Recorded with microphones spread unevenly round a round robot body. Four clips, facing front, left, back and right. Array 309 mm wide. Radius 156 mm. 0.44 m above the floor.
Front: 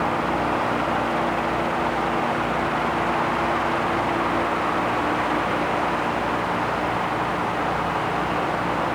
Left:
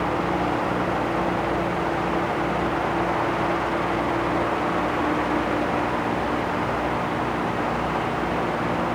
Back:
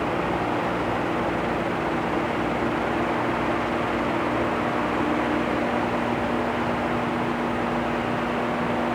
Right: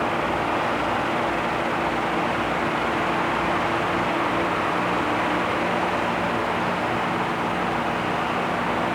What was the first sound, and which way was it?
Only background noise.